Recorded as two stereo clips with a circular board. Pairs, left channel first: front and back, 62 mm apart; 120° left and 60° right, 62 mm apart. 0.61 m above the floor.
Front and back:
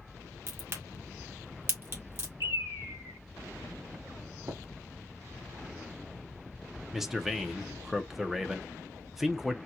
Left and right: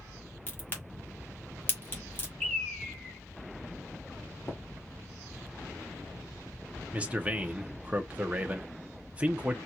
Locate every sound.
0.5 s a crack: 160° left, 1.7 m
2.4 s a bird: 165° right, 2 m
4.5 s tapping: 170° left, 0.9 m
6.9 s a man speaking: 100° right, 0.6 m